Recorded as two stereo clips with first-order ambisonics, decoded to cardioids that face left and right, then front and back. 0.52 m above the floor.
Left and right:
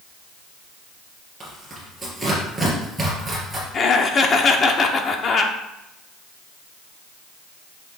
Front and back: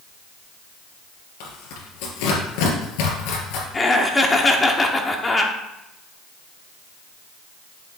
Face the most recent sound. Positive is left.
turn(degrees=60)